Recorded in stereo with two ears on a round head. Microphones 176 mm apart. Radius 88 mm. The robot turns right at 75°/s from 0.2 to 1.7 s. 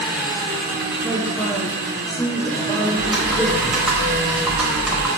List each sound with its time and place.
0.0 s an engine running: 175° right, 0.8 m; by 5.2 s 65° right, 0.8 m
1.0 s a man speaking: 25° right, 0.8 m; by 3.8 s 25° left, 0.8 m
3.0 s typing on a keyboard: centre (ahead or behind), 0.5 m